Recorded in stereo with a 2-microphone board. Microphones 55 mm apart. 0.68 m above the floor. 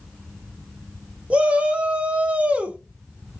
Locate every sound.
1.3 s a shout: 25° right (ahead or behind), 0.6 m